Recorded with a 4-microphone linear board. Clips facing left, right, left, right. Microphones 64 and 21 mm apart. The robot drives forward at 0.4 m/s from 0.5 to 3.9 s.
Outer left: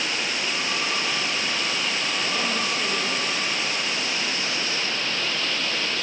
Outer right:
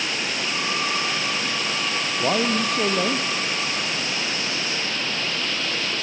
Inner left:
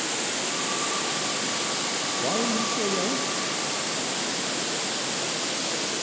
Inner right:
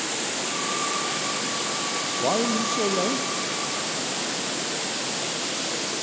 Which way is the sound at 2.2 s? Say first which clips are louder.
Outer right 8 dB, inner right 3 dB; 55° right (ahead or behind).